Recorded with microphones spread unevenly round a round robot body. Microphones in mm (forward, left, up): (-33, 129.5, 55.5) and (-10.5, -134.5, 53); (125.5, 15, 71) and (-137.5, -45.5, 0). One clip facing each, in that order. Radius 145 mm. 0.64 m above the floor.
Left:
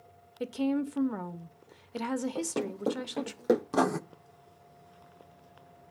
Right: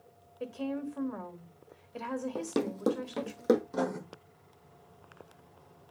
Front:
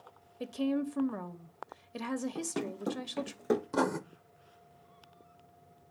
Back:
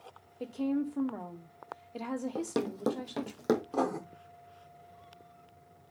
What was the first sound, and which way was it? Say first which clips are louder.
A woman speaking: left 6 dB, even; 80° left.